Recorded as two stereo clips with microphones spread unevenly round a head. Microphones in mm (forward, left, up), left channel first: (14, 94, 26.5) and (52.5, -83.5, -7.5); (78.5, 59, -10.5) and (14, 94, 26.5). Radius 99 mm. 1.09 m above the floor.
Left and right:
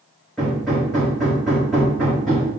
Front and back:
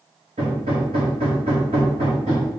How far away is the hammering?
About 2 m.